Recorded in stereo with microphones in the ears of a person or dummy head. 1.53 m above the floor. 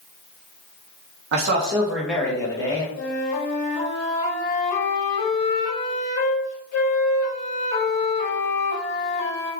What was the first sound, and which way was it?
A man speaking, 55° right (ahead or behind).